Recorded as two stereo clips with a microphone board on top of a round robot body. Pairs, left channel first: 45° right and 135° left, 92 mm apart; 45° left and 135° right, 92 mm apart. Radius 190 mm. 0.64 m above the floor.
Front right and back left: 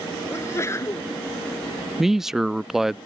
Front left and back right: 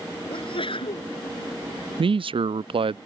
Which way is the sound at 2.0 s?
140° right.